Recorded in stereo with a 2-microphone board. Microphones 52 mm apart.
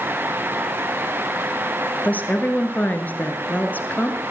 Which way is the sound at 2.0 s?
35° left (ahead or behind).